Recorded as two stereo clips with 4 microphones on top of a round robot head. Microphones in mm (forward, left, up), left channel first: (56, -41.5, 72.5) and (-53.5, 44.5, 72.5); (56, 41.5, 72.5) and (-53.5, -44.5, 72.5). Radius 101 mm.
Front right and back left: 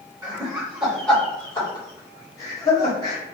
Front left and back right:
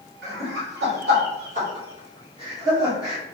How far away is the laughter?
About 1.0 m.